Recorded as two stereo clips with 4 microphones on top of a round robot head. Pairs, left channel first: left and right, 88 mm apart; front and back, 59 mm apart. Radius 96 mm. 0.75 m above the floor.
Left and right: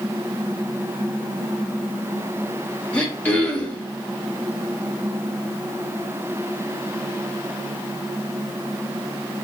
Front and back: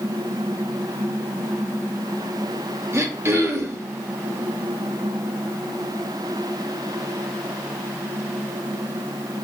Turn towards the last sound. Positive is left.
turn(degrees=160)